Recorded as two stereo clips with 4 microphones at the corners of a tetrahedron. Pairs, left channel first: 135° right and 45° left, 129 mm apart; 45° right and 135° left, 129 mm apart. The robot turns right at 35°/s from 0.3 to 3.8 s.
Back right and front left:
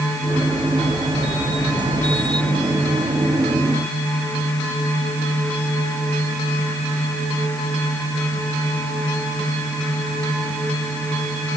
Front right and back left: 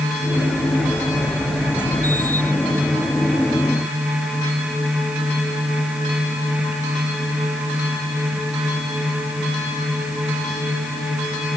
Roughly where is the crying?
I don't hear crying.